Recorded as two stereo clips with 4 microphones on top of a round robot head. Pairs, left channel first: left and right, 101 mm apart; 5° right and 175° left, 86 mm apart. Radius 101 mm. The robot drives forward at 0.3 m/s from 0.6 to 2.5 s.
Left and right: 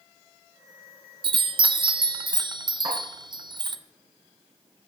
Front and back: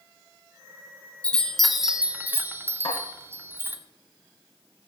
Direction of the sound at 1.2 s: 80° right.